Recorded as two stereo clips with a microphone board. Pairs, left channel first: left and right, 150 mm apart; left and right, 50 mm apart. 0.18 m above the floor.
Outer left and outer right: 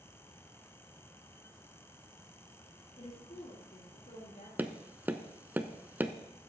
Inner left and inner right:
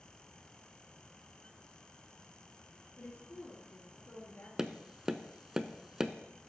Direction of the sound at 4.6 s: 15° right (ahead or behind).